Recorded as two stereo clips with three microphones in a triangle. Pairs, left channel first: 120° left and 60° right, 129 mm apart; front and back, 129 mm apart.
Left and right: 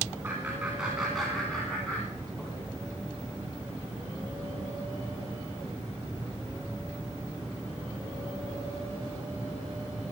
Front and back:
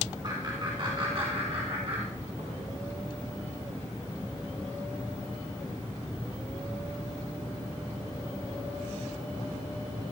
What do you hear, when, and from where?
0.2 s laughter: 135° right, 2.5 m; by 2.6 s straight behind, 2.5 m